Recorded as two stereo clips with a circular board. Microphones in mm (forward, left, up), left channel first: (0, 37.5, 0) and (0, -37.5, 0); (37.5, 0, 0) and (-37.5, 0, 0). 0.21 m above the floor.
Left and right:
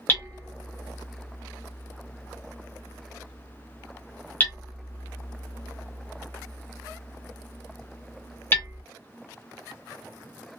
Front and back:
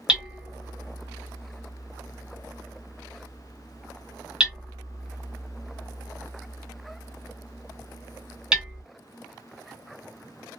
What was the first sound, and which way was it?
Hammering, 115° left.